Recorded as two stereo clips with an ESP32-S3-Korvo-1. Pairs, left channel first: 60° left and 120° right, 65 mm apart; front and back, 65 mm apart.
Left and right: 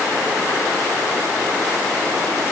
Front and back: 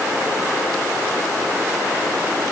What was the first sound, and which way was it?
Only background noise.